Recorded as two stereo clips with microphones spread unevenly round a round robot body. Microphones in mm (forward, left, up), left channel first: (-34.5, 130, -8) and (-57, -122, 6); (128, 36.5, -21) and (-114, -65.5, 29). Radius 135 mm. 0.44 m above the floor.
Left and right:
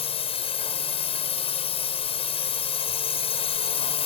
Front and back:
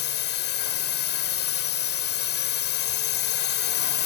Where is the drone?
25° left.